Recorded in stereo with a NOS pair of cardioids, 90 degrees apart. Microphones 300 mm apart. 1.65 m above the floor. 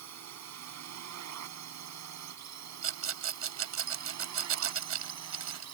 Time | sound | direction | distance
0.0 | a drone | 65° right | ?
2.8 | a rattle | 50° right | ?